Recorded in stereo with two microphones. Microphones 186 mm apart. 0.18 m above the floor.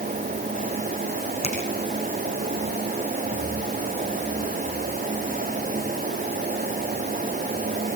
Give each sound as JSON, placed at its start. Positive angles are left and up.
{"t": 1.4, "sound": "a finger snap", "side_deg": 30, "distance_m": 8.0}